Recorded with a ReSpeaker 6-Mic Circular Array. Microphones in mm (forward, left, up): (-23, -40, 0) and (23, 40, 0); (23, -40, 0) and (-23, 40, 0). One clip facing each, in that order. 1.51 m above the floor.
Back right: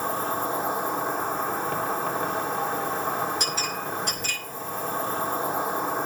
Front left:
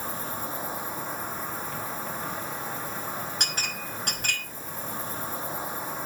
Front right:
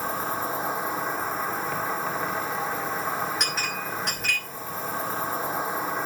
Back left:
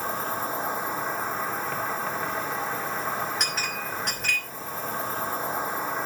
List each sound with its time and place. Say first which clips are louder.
0.0 s an insect: back right 7 dB, front right 1 dB; 150° right, 2.5 m
3.4 s a clink: back right 5 dB, front right 1 dB; 30° left, 5 m